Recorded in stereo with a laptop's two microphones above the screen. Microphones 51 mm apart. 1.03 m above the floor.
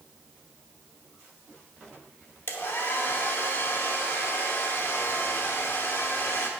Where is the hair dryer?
50° left (ahead or behind), 0.8 m.